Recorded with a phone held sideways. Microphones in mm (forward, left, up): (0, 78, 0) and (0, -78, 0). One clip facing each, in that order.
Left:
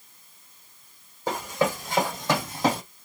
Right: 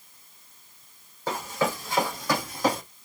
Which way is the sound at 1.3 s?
15° left (ahead or behind).